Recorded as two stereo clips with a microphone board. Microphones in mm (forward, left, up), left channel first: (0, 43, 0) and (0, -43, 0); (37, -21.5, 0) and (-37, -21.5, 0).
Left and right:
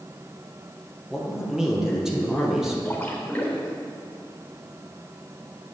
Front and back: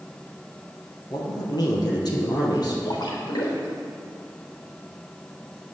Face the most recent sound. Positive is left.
turn(degrees=15)